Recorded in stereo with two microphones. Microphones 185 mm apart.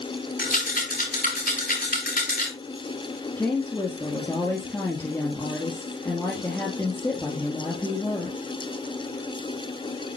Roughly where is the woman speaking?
Centre.